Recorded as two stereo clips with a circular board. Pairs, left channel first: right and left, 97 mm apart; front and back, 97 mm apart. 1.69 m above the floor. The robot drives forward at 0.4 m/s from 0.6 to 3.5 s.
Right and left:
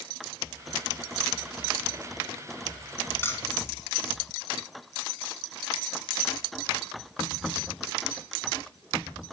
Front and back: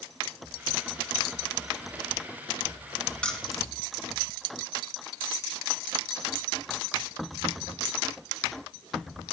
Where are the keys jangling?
65° right, 0.6 m; by 3.7 s 90° right, 0.6 m.